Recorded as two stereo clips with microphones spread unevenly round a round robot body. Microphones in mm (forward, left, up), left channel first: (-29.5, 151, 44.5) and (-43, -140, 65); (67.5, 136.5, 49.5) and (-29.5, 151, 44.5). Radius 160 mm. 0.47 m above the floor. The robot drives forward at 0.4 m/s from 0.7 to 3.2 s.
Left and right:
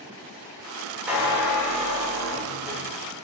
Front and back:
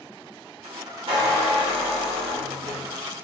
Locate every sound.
1.1 s a squeak: straight behind, 0.9 m